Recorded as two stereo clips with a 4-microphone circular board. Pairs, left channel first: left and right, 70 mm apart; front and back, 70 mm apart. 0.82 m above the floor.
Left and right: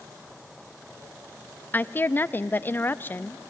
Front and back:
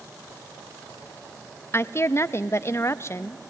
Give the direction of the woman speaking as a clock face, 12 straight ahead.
11 o'clock.